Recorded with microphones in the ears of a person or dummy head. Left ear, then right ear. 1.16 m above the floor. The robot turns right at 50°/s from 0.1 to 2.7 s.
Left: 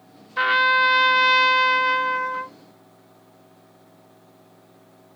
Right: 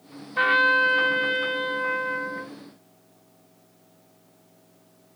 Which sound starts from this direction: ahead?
A trumpet, at 0.4 s.